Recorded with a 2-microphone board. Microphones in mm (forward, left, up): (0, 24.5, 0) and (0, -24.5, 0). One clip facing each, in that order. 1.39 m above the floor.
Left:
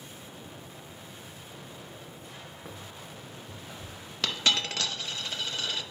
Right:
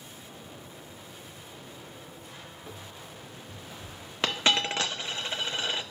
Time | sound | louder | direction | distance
2.6 | running footsteps | even | 60° left (ahead or behind) | 5 m
4.2 | a dropped coin | right 2 dB | 25° right (ahead or behind) | 0.7 m